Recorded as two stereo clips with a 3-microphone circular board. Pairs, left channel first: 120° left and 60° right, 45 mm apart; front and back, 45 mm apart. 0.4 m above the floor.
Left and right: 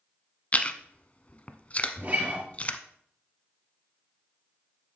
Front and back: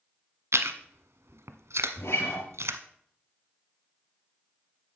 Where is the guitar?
10° right, 3.5 m.